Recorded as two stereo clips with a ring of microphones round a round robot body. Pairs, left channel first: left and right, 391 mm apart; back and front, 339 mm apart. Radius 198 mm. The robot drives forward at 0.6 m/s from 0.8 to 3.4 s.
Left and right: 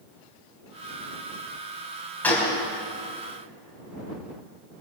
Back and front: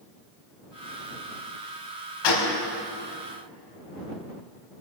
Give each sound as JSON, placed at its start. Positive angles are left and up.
{"t": 2.2, "sound": "a gunshot", "azimuth_deg": 175, "distance_m": 4.5}